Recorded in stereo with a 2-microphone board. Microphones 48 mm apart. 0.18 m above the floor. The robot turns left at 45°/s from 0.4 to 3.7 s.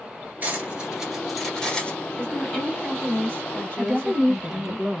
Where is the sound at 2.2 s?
160° left, 2.0 m; by 4.8 s 90° left, 2.0 m.